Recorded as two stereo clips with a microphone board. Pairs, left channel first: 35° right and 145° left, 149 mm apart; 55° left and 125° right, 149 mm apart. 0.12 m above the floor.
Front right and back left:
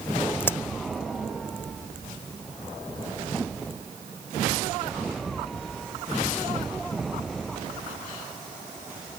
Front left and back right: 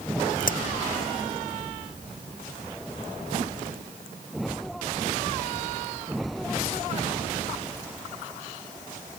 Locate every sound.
0.4 s a crack: 40° left